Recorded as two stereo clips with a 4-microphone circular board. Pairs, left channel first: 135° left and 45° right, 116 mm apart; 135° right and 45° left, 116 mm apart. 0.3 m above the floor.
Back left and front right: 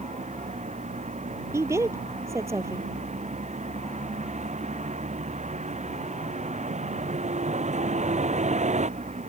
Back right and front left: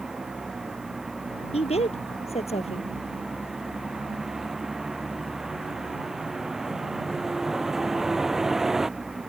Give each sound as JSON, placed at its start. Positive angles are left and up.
{"t": 0.0, "sound": "a vehicle", "azimuth_deg": -40}
{"t": 1.5, "sound": "a woman speaking", "azimuth_deg": -110}